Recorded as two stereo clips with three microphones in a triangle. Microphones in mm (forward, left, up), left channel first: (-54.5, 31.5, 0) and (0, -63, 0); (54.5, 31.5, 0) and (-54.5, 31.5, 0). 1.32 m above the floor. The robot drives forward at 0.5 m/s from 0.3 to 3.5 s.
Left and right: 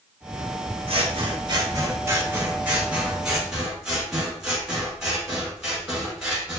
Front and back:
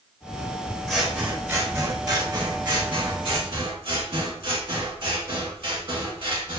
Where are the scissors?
90° right, 1.0 m; by 6.6 s 145° right, 1.7 m.